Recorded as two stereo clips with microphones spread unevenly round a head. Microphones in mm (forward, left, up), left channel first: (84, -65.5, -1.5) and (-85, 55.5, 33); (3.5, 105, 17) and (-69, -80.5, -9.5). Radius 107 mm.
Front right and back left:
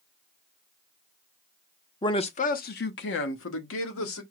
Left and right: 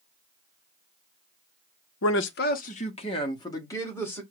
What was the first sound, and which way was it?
A man speaking, 35° left.